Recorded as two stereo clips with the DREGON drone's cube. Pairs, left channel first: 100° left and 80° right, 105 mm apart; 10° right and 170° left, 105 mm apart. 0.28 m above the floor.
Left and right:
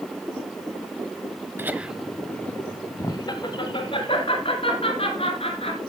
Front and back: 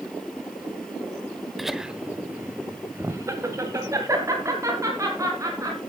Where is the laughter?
100° right, 1.0 m; by 5.8 s 110° left, 3 m.